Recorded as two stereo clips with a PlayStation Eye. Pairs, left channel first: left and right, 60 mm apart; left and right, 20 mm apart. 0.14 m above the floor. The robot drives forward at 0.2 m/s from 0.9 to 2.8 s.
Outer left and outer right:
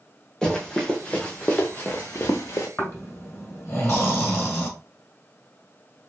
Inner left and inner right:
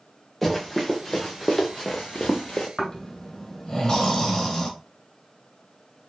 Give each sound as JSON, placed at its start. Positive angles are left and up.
{"t": 0.4, "sound": "running footsteps", "side_deg": 10, "distance_m": 1.4}
{"t": 2.8, "sound": "snoring", "side_deg": 45, "distance_m": 1.4}